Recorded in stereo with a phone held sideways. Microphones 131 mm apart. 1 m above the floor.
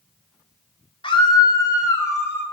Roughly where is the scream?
Left.